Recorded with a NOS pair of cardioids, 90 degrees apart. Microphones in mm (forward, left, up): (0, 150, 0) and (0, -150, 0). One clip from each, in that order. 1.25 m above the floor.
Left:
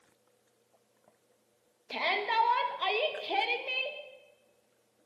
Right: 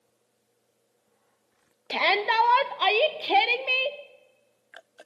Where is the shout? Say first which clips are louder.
Right 7 dB; 50° right, 1.3 m.